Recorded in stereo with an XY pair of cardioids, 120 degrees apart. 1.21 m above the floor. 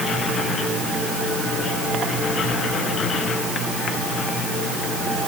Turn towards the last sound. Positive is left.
No sound to turn to.